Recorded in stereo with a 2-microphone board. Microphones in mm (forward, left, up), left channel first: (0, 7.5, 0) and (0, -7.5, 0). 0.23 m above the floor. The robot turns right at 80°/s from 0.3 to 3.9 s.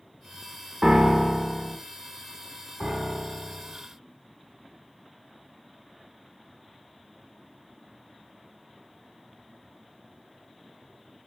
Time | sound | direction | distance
0.8 | a piano | 100° right | 0.7 m
2.8 | a piano | 50° right | 0.9 m